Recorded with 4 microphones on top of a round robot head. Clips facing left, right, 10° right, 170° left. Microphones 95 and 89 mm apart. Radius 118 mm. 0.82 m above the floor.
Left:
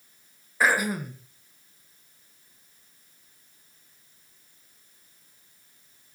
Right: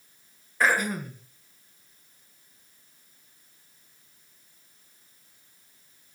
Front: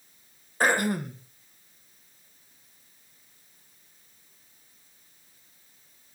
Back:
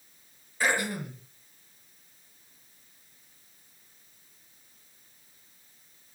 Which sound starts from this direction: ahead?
Throat clearing, at 0.6 s.